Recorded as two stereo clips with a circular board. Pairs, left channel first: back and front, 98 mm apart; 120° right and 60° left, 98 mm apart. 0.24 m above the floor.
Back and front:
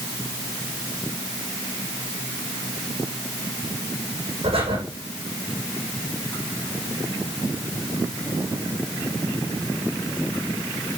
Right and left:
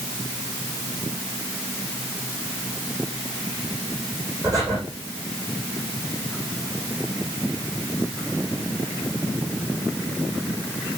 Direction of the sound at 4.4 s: 5° left.